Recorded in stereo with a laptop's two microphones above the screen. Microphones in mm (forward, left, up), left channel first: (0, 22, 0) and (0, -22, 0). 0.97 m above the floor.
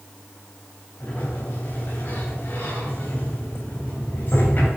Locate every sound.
1.0 s a sliding door: 50° left (ahead or behind), 3 m